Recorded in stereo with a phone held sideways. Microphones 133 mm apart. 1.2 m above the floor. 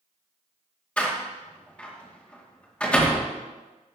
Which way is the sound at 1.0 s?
10° left (ahead or behind).